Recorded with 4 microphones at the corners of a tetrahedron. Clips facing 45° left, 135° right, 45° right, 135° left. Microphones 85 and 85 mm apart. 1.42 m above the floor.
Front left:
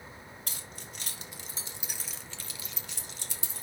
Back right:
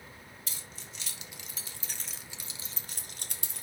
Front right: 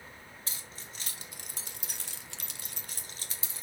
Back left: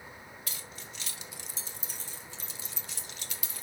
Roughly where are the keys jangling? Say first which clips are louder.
Front left 3 dB, back left 2 dB; ahead.